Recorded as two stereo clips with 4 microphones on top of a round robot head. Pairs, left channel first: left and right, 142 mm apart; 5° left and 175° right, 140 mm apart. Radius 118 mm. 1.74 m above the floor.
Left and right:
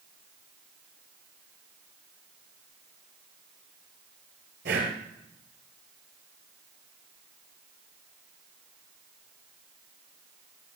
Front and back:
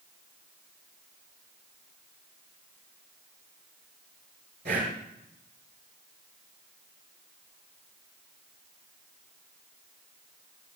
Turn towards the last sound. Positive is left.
turn(degrees=-130)